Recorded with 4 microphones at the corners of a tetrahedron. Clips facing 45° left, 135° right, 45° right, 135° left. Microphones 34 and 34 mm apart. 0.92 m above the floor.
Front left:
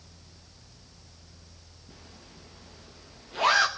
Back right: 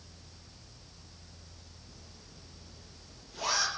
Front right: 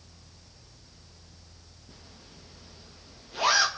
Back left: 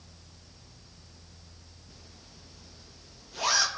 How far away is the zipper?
About 1.2 m.